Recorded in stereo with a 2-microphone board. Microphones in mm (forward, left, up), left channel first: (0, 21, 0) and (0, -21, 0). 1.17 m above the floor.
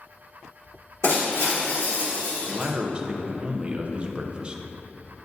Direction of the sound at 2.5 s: 25° right (ahead or behind).